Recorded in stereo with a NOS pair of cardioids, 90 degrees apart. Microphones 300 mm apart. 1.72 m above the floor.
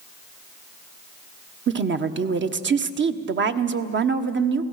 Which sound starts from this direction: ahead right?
A woman speaking, at 1.7 s.